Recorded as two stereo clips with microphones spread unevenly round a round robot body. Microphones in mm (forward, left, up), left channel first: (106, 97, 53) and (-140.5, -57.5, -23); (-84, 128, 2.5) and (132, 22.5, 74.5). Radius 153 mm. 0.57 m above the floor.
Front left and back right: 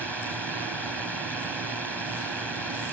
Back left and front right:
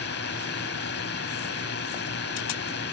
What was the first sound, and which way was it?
A drone, 125° left.